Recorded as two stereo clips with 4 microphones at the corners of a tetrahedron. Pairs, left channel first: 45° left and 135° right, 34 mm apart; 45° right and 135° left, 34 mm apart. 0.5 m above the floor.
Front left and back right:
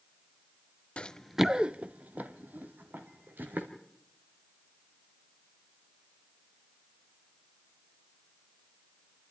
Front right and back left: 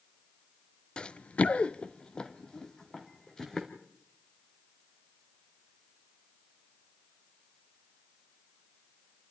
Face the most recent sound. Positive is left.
turn(degrees=-120)